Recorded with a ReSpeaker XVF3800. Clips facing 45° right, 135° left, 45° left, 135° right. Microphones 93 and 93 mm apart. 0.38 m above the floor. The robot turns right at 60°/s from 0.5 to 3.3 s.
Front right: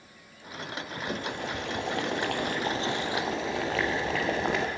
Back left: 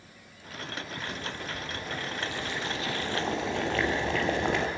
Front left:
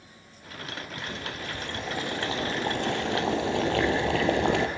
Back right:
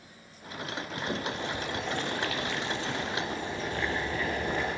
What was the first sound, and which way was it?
Boiling, 95° right.